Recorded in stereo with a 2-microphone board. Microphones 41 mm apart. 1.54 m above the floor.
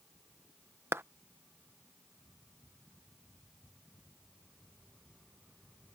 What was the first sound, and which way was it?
A clap, 75° right (ahead or behind).